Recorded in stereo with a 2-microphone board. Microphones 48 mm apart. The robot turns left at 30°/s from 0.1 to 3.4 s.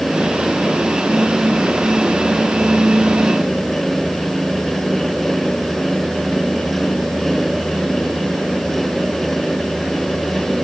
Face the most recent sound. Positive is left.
No sound to turn to.